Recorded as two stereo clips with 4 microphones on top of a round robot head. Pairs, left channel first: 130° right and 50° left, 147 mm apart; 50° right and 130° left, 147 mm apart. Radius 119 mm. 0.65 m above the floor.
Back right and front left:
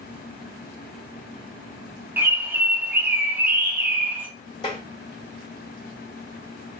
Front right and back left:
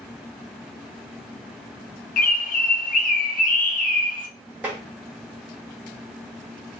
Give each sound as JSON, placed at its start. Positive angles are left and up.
{"t": 2.2, "sound": "a bird", "azimuth_deg": -25, "distance_m": 0.5}
{"t": 4.6, "sound": "tapping", "azimuth_deg": -160, "distance_m": 1.4}